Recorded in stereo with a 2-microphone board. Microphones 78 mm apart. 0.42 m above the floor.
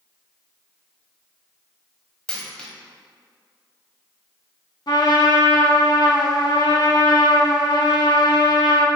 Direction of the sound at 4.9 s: 60° left (ahead or behind).